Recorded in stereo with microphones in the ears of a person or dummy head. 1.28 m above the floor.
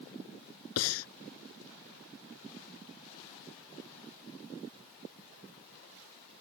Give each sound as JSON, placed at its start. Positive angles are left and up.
{"t": 0.8, "sound": "breathing", "side_deg": 75}